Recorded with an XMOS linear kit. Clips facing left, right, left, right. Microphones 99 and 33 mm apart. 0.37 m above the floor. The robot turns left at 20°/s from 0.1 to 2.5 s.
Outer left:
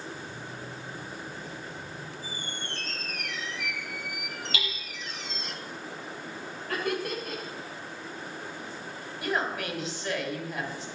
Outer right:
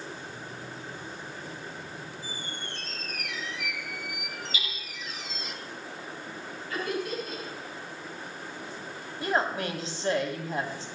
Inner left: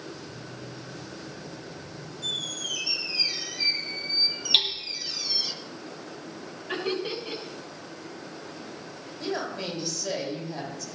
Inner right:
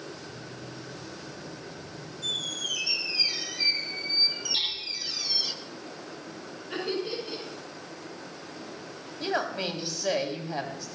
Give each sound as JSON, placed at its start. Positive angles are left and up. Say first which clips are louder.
{"t": 2.2, "sound": "a squeak", "louder": "even, even", "side_deg": 0, "distance_m": 1.0}
{"t": 4.5, "sound": "hammering", "louder": "outer left 6 dB, inner left 9 dB", "side_deg": 75, "distance_m": 3.0}
{"t": 6.7, "sound": "laughter", "louder": "outer left 1 dB, inner left 2 dB", "side_deg": 75, "distance_m": 6.5}
{"t": 9.2, "sound": "a woman speaking", "louder": "outer right 2 dB, inner right 2 dB", "side_deg": -35, "distance_m": 2.5}